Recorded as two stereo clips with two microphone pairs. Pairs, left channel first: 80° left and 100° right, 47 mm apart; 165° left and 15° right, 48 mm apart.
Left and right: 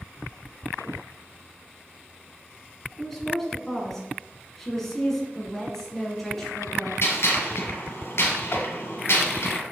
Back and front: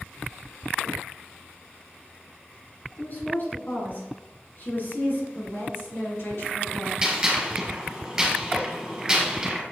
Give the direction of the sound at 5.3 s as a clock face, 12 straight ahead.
7 o'clock.